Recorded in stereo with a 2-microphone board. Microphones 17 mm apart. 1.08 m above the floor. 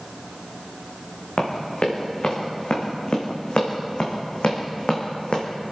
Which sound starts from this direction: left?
Running footsteps, at 1.4 s.